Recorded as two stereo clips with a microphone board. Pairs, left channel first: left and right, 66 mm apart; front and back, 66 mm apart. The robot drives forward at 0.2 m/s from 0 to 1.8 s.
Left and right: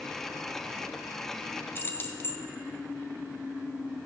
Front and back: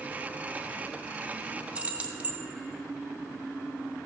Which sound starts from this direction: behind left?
Keys jangling, at 1.8 s.